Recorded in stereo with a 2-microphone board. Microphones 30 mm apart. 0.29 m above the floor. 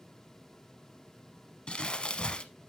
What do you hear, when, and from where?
1.7 s crumpling: 35° left (ahead or behind), 0.7 m